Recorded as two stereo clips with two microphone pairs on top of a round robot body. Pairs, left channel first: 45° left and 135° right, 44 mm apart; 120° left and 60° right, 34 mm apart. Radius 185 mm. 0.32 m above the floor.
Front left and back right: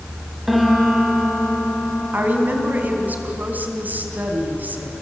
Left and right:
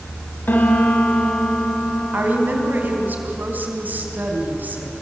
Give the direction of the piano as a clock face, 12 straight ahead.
7 o'clock.